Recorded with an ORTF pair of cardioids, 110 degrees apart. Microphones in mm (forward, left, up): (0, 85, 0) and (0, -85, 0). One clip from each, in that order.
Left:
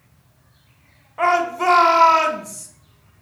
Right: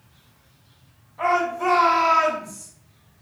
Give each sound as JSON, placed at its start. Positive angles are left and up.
{"t": 1.2, "sound": "a shout", "azimuth_deg": 60, "distance_m": 1.0}